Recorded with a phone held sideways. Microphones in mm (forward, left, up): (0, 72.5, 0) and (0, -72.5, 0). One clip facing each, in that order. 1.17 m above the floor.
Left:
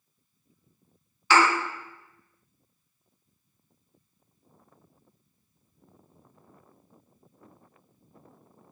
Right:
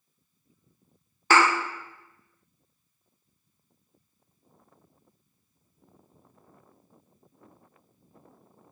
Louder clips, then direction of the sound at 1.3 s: Even; 50° right (ahead or behind).